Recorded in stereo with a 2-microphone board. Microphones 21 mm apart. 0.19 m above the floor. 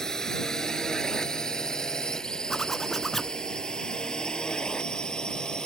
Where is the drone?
35° left (ahead or behind); by 5.7 s 50° left (ahead or behind).